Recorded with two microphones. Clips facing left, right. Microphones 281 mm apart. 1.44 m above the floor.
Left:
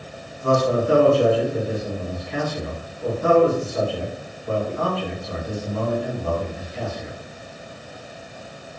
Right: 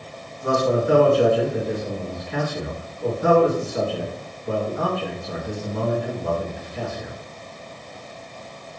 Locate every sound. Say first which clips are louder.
0.4 s a man speaking: left 1 dB; 20° right (ahead or behind), 2 m